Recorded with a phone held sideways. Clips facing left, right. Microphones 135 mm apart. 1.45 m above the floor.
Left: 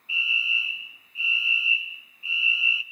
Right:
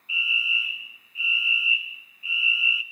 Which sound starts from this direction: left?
A fire alarm, at 0.1 s.